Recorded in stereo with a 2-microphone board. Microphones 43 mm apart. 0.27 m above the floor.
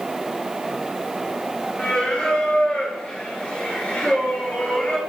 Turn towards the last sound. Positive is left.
turn(degrees=20)  # may be behind; listen again after turning